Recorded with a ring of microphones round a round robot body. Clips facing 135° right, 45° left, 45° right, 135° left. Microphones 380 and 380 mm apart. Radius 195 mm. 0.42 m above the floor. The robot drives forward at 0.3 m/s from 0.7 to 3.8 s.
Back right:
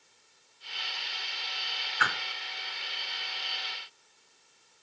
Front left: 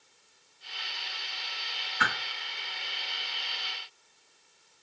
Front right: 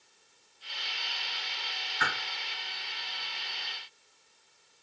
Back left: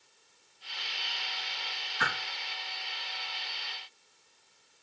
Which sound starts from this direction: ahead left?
A whoosh, at 2.0 s.